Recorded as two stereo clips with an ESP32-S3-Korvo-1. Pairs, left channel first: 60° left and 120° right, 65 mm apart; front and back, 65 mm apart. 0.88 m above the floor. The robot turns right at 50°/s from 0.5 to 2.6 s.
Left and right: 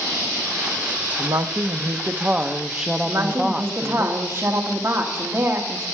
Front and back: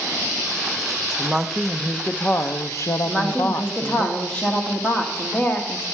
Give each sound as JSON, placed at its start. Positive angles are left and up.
{"t": 1.2, "sound": "a woman speaking", "azimuth_deg": -110, "distance_m": 0.7}
{"t": 3.0, "sound": "a woman speaking", "azimuth_deg": -70, "distance_m": 1.7}